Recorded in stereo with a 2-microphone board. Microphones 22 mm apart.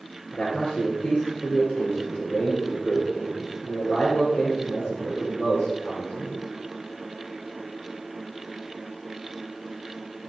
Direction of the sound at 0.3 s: 75° left (ahead or behind).